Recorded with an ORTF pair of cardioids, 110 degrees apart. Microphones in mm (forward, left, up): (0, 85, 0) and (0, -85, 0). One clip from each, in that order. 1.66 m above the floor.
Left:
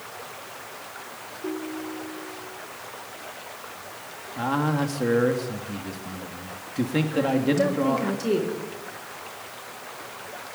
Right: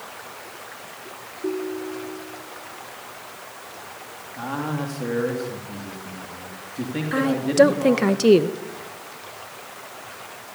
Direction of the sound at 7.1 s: 60° right.